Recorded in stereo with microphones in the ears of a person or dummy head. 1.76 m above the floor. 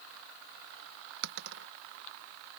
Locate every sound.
1.2 s a dropped coin: 65° right (ahead or behind)